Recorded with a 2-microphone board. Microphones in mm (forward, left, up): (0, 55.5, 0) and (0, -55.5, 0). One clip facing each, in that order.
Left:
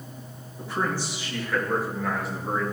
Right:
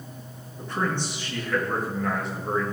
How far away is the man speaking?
About 3 m.